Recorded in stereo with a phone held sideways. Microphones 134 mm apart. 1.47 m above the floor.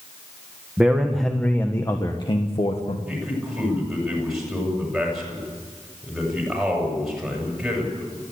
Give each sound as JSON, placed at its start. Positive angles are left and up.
{"t": 0.8, "sound": "a man speaking", "side_deg": -10, "distance_m": 1.5}
{"t": 3.1, "sound": "a man speaking", "side_deg": -5, "distance_m": 8.0}